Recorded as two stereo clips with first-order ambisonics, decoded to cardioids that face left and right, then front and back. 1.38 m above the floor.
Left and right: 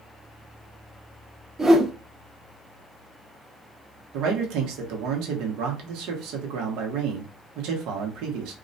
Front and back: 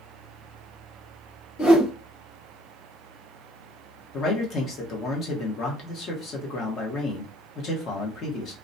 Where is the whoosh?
35° right, 1.4 m.